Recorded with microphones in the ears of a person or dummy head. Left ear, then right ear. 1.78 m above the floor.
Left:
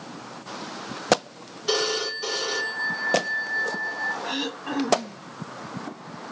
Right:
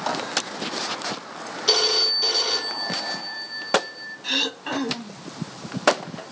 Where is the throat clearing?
35° right (ahead or behind), 0.8 m.